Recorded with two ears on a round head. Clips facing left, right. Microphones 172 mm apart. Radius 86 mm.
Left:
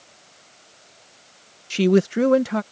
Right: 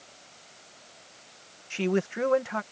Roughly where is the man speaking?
Left.